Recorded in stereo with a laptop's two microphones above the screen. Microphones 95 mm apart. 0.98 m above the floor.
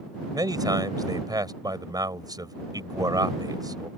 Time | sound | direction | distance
0.3 | a man speaking | 40° right (ahead or behind) | ?